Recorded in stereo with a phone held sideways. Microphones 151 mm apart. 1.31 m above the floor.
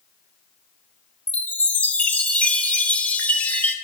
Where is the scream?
No scream in this recording.